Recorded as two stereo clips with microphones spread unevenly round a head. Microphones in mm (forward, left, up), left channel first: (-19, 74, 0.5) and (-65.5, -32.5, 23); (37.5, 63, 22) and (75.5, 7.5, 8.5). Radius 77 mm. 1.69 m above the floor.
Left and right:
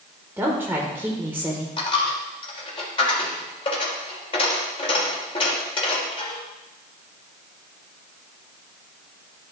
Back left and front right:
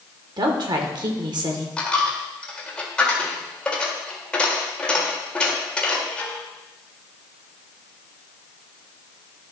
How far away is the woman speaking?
About 1.3 m.